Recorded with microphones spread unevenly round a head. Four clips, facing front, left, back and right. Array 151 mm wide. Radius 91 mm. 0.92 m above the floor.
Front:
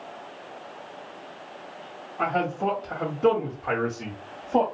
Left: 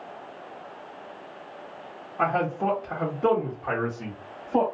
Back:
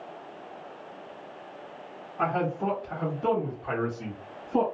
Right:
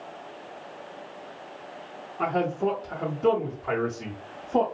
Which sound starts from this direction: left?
A man speaking, at 2.2 s.